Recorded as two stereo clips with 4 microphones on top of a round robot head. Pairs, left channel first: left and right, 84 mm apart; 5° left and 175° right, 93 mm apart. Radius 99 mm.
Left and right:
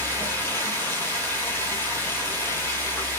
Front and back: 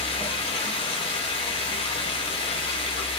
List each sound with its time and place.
0.0 s running water: 30° left, 3 m